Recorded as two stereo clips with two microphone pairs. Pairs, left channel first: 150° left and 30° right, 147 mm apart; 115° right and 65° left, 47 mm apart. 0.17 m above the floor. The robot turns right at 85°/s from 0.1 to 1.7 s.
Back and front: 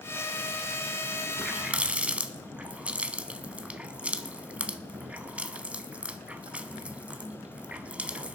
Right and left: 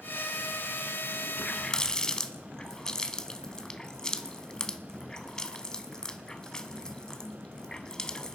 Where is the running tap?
110° right, 0.7 m; by 8.4 s 85° right, 0.7 m.